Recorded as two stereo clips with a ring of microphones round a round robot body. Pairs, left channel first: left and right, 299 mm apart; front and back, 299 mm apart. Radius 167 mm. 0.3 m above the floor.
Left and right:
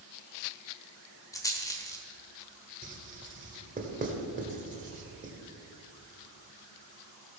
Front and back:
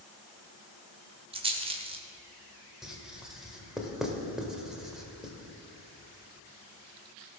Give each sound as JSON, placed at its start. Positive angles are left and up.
{"t": 1.3, "sound": "a rattle", "azimuth_deg": 150, "distance_m": 1.1}
{"t": 2.8, "sound": "writing", "azimuth_deg": -95, "distance_m": 1.5}